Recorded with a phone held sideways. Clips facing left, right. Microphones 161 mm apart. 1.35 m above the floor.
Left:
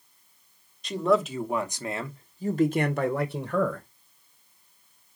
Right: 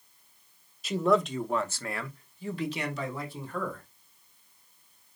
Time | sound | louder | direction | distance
0.8 | a man speaking | left 1 dB | 5° right (ahead or behind) | 1.2 m